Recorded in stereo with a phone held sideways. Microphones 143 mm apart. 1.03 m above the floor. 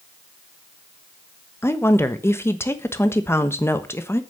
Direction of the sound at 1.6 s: 15° left (ahead or behind).